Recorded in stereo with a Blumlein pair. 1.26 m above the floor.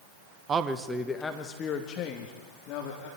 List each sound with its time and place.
0.5 s a man speaking: 25° right, 1.4 m; by 3.1 s 45° left, 3.5 m